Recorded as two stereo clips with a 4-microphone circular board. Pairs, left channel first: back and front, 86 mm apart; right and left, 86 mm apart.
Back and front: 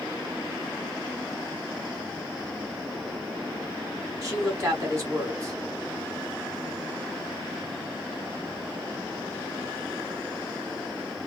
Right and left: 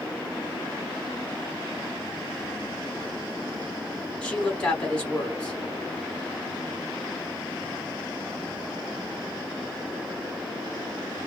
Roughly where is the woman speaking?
Ahead.